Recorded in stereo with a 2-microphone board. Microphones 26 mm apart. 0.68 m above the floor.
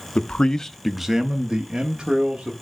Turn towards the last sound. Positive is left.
turn(degrees=-50)  # may be behind; listen again after turning